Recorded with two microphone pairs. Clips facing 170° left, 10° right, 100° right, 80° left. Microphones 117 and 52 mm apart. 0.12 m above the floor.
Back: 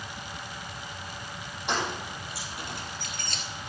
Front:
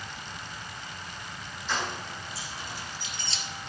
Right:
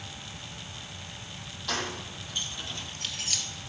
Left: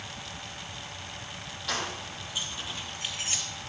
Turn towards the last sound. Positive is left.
turn(degrees=140)